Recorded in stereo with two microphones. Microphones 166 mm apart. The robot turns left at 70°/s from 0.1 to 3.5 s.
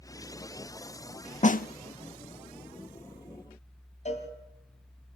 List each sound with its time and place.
1.4 s a snare drum: 45° left (ahead or behind), 0.5 m; by 1.7 s 60° left (ahead or behind), 0.5 m
4.0 s a cowbell: 45° left (ahead or behind), 2.5 m